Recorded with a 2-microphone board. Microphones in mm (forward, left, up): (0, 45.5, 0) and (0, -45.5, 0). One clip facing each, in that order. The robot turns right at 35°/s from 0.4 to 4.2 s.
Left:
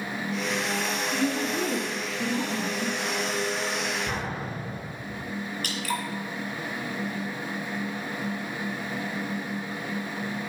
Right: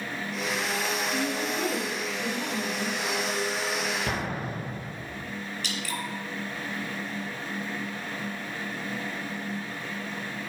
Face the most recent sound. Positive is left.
turn(degrees=55)  # may be behind; listen again after turning